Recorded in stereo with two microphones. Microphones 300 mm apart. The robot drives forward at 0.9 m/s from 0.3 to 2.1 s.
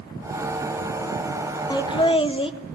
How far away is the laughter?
About 1.5 m.